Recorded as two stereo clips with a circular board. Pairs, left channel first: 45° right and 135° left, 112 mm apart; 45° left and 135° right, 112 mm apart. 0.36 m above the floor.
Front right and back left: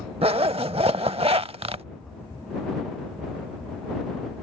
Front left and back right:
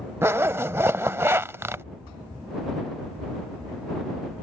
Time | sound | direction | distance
0.2 | a zipper | 160° left | ?